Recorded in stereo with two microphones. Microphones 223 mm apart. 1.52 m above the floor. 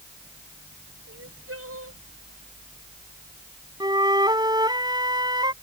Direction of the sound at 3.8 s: 20° right (ahead or behind).